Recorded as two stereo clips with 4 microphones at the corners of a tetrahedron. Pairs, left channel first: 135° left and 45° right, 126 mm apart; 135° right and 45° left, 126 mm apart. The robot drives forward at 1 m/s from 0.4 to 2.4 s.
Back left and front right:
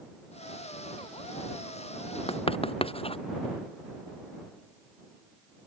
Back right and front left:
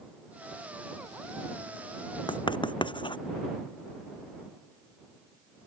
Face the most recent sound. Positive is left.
turn(degrees=175)